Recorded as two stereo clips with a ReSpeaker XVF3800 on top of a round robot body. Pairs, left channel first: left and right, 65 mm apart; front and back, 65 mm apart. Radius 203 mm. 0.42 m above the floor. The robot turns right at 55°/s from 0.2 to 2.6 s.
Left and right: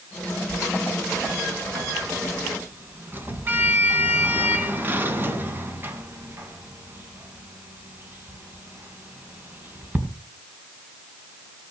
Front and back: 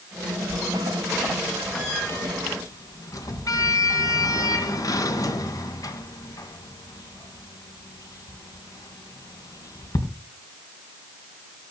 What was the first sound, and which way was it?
A sliding door, 145° right.